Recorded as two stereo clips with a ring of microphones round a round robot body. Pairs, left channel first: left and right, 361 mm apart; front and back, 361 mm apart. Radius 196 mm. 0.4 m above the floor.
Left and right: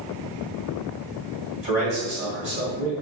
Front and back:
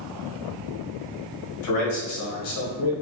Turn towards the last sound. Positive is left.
turn(degrees=-20)